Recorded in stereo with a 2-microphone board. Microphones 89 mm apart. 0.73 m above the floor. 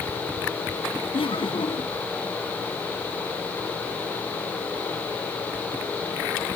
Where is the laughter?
80° left.